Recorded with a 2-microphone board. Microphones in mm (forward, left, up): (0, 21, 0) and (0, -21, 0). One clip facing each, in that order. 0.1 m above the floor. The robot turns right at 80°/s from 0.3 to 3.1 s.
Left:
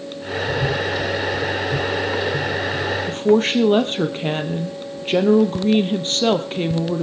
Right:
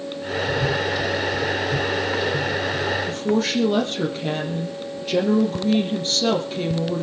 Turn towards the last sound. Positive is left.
turn(degrees=40)  # may be behind; listen again after turning